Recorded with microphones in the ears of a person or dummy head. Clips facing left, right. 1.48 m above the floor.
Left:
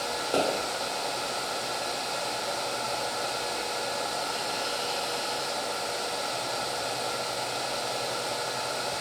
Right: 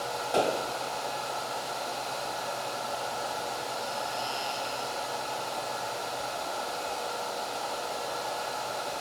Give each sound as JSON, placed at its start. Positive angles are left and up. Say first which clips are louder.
{"t": 0.3, "sound": "a pop", "louder": "even", "side_deg": 40, "distance_m": 1.3}